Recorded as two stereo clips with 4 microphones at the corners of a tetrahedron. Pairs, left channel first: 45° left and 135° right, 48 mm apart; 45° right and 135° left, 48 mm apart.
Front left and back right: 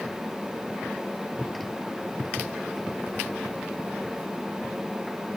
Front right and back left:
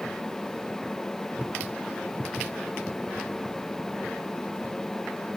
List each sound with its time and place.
Only background noise.